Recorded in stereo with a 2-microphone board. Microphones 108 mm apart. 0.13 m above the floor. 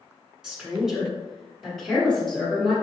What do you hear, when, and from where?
0.4 s a woman speaking: 5° right (ahead or behind), 1.3 m; by 2.7 s 5° left (ahead or behind), 1.4 m